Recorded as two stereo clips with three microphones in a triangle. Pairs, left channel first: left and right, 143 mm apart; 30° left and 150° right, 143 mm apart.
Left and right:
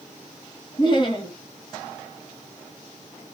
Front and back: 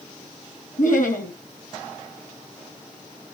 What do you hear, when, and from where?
0.8 s laughter: 35° left, 3 m